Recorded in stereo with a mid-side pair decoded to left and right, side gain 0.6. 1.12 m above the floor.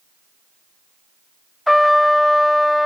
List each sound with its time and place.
1.7 s a trumpet: 5° left